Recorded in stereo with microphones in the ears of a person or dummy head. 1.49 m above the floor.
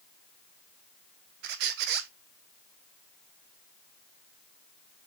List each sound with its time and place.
1.4 s a squeak: 55° right (ahead or behind), 0.6 m